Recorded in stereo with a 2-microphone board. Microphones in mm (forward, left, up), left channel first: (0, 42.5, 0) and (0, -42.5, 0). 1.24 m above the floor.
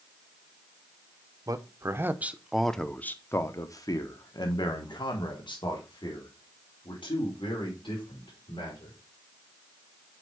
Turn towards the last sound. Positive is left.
turn(degrees=75)  # may be behind; listen again after turning